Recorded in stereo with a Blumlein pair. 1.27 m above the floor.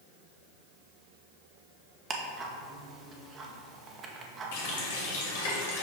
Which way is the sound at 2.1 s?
20° right.